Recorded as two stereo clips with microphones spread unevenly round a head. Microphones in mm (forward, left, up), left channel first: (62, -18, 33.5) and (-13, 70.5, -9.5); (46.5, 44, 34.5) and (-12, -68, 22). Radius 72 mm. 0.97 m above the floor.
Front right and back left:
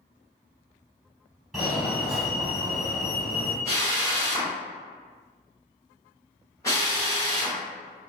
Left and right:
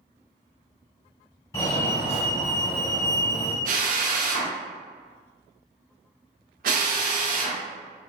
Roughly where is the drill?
Behind right.